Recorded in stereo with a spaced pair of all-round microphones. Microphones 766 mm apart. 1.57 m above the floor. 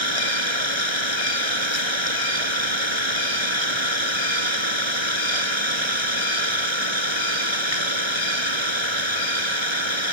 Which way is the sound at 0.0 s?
35° right (ahead or behind).